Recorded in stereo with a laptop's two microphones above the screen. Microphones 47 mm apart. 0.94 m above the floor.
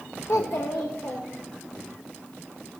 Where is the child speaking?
65° left (ahead or behind), 0.5 m; by 1.8 s 80° left, 1.9 m.